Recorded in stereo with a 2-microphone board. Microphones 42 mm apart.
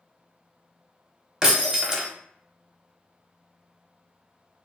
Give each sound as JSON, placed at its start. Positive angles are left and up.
{"t": 1.4, "sound": "breaking glass", "side_deg": -15, "distance_m": 0.8}